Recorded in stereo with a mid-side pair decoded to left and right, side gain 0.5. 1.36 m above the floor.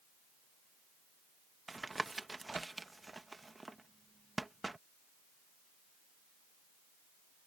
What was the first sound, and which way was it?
Tapping, 15° right.